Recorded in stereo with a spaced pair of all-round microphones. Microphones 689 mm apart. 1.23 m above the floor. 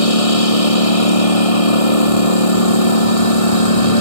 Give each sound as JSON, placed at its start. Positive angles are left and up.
{"t": 0.0, "sound": "a lawn mower", "side_deg": 50}